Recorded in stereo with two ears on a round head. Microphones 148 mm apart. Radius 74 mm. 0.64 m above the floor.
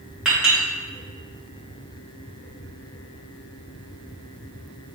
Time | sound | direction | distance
0.2 | a clink | 5° right (ahead or behind) | 1.7 m